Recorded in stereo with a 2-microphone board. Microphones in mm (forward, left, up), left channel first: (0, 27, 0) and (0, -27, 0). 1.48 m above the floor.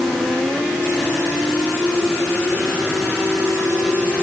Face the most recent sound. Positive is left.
No sound to turn to.